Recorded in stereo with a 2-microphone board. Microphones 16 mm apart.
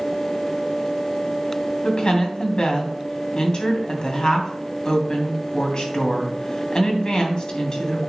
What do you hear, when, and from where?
1.8 s a woman speaking: 55° left (ahead or behind), 3 m